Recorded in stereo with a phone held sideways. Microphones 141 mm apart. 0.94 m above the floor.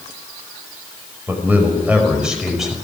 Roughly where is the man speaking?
Centre.